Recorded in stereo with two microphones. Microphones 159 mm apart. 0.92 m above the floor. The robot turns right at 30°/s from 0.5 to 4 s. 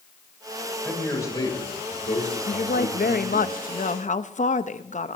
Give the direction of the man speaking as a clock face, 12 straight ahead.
12 o'clock.